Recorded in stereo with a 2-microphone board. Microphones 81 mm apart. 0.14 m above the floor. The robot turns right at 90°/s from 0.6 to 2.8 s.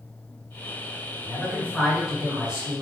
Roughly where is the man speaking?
Left.